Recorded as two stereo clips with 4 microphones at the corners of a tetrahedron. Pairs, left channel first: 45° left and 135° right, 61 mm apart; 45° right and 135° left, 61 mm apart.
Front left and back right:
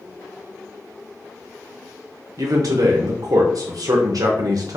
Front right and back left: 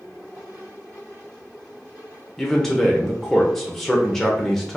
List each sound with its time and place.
2.4 s a man speaking: 130° right, 0.6 m